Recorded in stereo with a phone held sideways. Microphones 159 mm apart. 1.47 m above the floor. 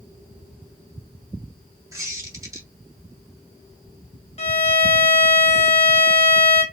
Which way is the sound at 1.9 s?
20° right (ahead or behind).